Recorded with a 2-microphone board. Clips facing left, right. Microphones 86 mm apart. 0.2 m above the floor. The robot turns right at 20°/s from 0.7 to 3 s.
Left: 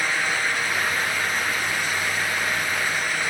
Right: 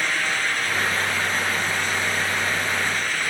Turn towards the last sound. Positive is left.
No sound to turn to.